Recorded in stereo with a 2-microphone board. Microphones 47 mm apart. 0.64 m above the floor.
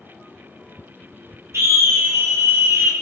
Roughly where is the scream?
Right.